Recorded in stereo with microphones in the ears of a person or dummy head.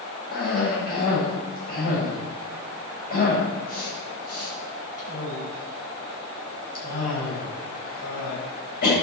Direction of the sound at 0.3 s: 55° left (ahead or behind).